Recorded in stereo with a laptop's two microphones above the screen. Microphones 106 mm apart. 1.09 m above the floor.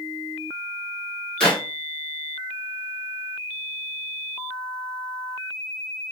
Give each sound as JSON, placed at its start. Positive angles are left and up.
{"t": 1.4, "sound": "a clap", "side_deg": 10, "distance_m": 1.7}